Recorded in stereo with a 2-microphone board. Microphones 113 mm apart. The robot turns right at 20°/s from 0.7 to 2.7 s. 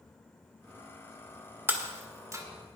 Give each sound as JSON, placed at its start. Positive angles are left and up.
{"t": 1.7, "sound": "breaking glass", "side_deg": -20, "distance_m": 1.5}